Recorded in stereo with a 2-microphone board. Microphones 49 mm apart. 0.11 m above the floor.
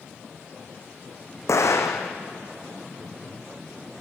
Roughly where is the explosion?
Left.